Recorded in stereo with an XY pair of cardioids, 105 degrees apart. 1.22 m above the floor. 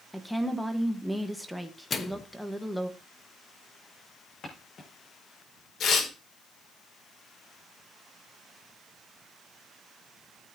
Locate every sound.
0.1 s a woman speaking: straight ahead, 1.3 m
1.9 s a microwave: 35° left, 1.1 m
4.4 s footsteps: 45° left, 4.5 m
5.8 s tearing paper: 65° left, 3 m